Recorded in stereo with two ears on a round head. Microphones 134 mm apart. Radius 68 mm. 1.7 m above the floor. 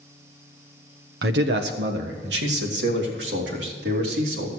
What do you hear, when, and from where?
1.2 s a man speaking: 80° right, 1.0 m; by 4.5 s 85° right, 3.5 m